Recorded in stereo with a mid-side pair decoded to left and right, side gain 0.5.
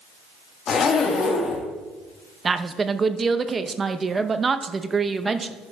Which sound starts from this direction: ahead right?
A woman speaking, at 2.5 s.